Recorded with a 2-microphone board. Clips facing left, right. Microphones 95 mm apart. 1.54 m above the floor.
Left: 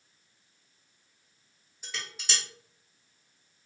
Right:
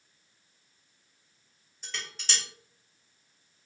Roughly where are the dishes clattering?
Centre.